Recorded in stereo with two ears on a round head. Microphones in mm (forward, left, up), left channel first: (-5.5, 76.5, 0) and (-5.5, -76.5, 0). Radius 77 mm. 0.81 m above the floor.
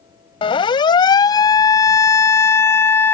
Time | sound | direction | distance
0.4 | a siren | 30° left (ahead or behind) | ?